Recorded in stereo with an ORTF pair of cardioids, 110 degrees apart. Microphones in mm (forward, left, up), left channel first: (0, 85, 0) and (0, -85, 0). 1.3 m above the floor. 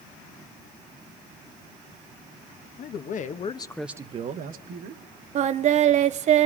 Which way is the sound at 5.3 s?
45° right.